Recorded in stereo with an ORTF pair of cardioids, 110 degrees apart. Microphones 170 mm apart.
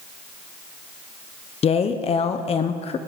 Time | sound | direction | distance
1.6 | a woman speaking | 40° left | 0.9 m